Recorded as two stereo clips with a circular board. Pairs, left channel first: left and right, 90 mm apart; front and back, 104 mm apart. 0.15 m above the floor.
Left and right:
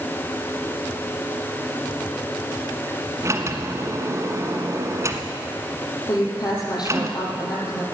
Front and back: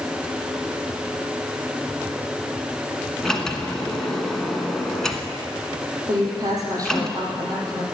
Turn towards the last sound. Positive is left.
turn(degrees=125)